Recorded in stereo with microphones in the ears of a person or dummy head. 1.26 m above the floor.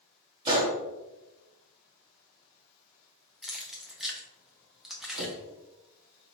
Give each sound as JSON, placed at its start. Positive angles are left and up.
{"t": 0.5, "sound": "a gunshot", "side_deg": -20, "distance_m": 0.8}
{"t": 3.4, "sound": "keys jangling", "side_deg": 0, "distance_m": 0.5}
{"t": 5.2, "sound": "knocking", "side_deg": -75, "distance_m": 1.1}